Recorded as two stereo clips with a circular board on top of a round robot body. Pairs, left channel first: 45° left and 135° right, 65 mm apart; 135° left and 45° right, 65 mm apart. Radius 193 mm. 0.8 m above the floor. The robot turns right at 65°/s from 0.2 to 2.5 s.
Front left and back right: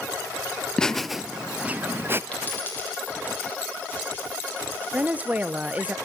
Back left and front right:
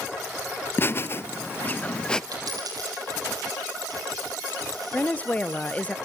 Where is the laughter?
115° left, 0.6 m; by 2.2 s 155° right, 0.6 m.